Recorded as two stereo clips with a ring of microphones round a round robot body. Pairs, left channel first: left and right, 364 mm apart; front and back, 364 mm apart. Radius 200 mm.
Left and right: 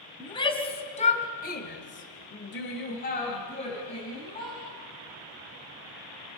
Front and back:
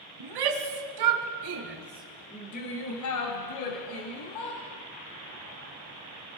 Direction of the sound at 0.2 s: 165° left.